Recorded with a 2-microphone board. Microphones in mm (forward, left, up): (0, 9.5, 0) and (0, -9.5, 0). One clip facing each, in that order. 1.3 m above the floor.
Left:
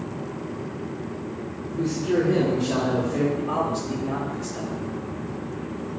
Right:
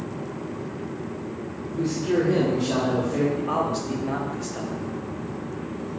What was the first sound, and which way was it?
A man speaking, 40° right (ahead or behind).